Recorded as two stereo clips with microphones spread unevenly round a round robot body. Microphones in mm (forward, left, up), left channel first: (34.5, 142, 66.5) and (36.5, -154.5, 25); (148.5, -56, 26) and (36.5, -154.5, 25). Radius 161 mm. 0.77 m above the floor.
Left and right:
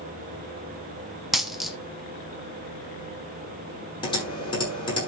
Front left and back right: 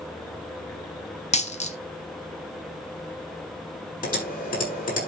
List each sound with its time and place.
1.3 s a dropped coin: 5° left, 1.1 m
4.0 s typing on a keyboard: 15° left, 9 m